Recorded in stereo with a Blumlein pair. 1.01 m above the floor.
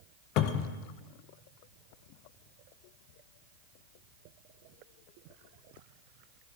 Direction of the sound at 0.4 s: 40° left.